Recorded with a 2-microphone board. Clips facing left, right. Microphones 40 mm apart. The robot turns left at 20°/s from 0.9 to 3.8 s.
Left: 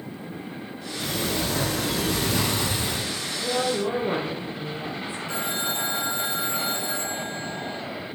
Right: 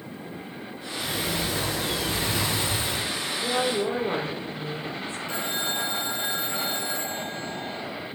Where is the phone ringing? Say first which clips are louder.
Left 1 dB; 15° left (ahead or behind), 3.5 m.